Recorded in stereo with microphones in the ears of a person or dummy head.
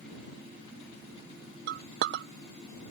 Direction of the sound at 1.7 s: 60° right (ahead or behind).